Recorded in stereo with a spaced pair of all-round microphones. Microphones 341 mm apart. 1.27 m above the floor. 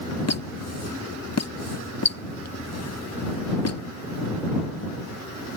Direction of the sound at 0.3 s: 50° left (ahead or behind).